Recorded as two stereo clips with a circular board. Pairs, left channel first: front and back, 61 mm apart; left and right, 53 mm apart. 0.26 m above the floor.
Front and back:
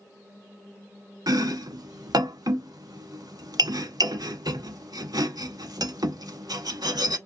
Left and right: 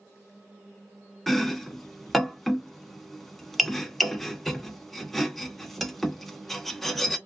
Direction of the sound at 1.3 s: Straight behind.